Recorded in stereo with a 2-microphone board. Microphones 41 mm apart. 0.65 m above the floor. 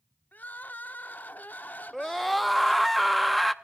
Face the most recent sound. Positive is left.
turn(degrees=0)  # may be behind; listen again after turning